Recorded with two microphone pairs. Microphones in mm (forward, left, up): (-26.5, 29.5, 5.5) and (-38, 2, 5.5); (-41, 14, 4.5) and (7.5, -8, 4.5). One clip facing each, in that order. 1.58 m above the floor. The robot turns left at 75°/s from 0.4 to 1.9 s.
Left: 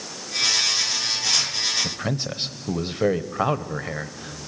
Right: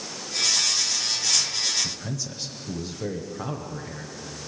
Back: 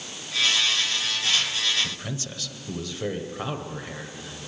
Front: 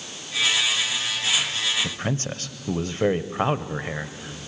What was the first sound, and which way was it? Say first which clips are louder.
A man speaking: left 6 dB, front 6 dB; 30° left.